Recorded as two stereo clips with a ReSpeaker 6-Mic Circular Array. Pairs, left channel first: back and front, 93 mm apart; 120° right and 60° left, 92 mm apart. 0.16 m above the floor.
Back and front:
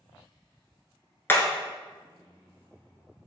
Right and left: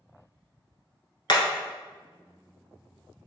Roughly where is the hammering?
Behind right.